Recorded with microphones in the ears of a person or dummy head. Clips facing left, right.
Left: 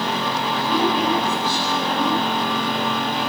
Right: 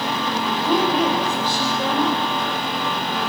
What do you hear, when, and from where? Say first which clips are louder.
0.5 s a woman speaking: right 1 dB; 60° right (ahead or behind), 5 m